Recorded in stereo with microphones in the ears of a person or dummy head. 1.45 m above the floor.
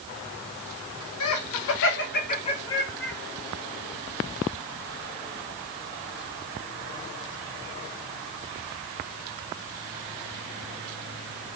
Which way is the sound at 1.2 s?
80° left.